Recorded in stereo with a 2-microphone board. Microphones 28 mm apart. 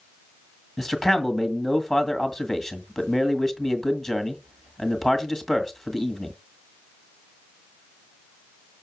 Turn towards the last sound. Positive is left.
turn(degrees=5)  # may be behind; listen again after turning